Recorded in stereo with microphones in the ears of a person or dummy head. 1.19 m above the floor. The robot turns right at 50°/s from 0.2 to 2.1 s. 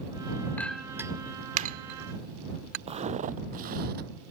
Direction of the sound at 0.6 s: 10° left (ahead or behind).